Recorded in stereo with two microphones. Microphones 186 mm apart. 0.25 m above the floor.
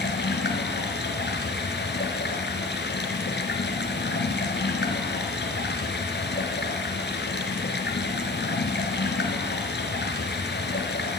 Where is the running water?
75° left (ahead or behind), 2 m.